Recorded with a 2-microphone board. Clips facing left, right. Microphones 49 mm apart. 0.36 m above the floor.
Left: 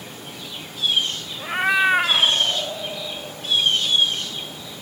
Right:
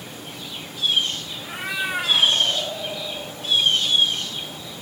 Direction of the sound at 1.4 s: 50° left (ahead or behind).